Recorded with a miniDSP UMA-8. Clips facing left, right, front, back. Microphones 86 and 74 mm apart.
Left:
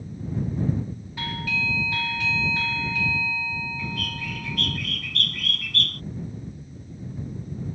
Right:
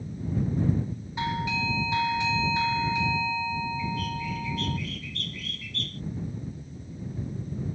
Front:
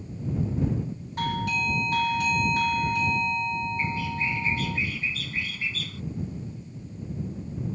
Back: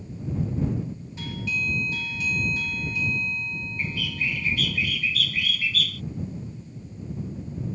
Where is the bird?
65° left.